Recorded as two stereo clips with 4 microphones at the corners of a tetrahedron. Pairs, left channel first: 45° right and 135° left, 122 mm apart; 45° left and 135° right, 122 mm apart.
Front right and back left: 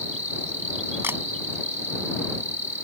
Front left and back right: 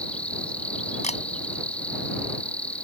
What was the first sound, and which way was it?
An insect, 125° left.